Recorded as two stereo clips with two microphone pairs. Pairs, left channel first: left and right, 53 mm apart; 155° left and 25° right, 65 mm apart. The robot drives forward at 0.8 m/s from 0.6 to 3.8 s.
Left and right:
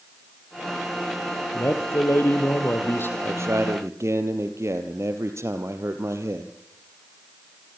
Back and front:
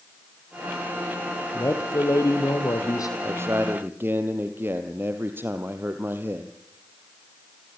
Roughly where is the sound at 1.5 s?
Behind left.